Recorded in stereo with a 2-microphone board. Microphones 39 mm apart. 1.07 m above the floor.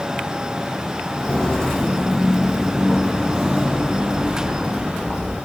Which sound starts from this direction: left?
Footsteps, at 1.2 s.